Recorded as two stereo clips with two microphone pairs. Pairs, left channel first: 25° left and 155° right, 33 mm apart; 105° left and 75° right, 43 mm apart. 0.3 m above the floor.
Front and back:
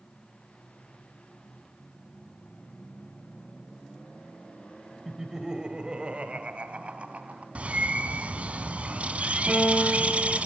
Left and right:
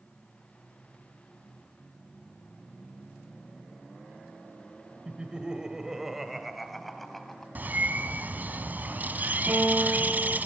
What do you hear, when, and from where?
5.0 s laughter: 95° right, 1.5 m; by 7.5 s 170° right, 2.5 m
7.5 s a bird: 115° right, 1.4 m
9.5 s a guitar: 85° right, 8.5 m